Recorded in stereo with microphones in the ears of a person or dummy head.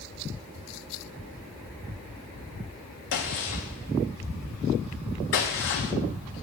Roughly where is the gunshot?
Left.